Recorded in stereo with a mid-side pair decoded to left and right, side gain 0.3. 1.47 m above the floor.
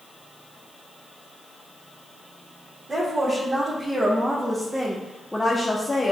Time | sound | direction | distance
2.9 | a woman speaking | 40° right | 1.6 m